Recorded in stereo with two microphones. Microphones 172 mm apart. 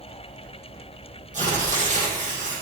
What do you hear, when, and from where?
1.3 s tearing paper: 45° right (ahead or behind), 6.5 m